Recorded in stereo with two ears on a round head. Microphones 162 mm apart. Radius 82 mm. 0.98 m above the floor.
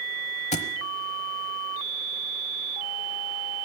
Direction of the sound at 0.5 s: 40° left (ahead or behind).